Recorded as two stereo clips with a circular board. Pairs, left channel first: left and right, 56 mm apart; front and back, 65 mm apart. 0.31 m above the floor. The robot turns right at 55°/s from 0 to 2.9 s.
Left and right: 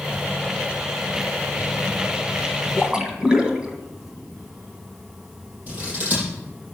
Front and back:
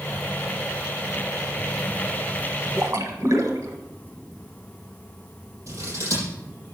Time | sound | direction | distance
2.8 | a splash | 170° right | 1.7 m
5.7 | scissors | 145° right | 8 m